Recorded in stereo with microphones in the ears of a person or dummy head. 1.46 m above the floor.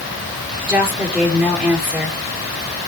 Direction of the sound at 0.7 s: Centre (ahead or behind).